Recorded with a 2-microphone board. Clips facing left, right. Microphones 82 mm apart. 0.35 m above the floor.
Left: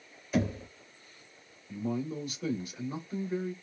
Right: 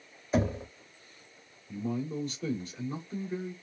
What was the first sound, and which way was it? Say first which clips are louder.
Knocking: right 2 dB; 30° right (ahead or behind).